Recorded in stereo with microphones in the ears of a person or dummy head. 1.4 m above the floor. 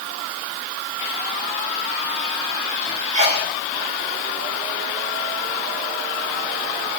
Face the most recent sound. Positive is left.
turn(degrees=-45)  # may be behind; listen again after turning